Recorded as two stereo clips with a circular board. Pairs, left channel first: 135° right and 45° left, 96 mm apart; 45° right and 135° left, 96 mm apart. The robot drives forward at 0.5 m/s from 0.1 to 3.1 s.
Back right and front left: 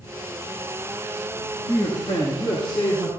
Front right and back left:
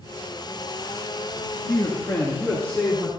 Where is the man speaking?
100° right, 1.9 m; by 3.1 s 125° right, 2 m.